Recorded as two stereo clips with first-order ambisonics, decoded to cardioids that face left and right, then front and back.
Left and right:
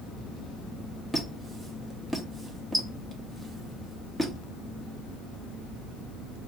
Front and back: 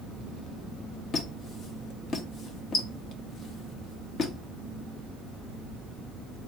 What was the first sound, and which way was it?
A squeak, 5° right.